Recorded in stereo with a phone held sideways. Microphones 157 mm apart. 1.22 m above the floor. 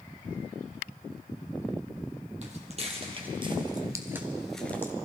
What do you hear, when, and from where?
2.4 s footsteps: 45° right (ahead or behind), 2.5 m; by 4.9 s 20° left (ahead or behind), 1.2 m